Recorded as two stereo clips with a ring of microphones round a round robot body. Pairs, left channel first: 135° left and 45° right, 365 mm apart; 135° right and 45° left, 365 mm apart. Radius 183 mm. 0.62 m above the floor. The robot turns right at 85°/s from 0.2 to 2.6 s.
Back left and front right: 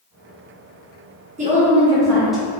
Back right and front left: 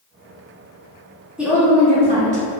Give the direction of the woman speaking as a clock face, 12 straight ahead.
1 o'clock.